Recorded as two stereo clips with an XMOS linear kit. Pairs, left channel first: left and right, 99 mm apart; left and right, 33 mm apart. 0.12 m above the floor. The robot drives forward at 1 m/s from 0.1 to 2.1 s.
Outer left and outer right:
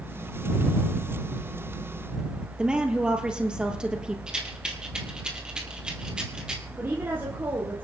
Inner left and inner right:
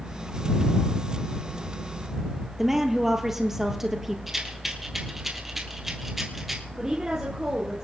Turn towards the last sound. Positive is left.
turn(degrees=-20)  # may be behind; listen again after turning